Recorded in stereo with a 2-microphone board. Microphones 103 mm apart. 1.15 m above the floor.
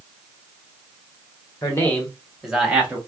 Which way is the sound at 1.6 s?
30° left (ahead or behind).